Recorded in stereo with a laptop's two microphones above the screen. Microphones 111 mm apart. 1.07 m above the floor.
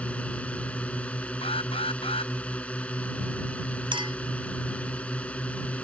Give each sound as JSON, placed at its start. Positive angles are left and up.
{"t": 0.0, "sound": "a drone", "side_deg": 15}
{"t": 1.4, "sound": "an alarm", "side_deg": 55}
{"t": 3.9, "sound": "a clink", "side_deg": -50}